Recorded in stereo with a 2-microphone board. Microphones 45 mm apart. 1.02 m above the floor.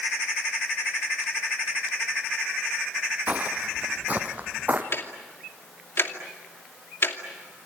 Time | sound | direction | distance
3.3 | footsteps | 35° right (ahead or behind) | 1.9 m
4.9 | ticking | 60° left (ahead or behind) | 2.5 m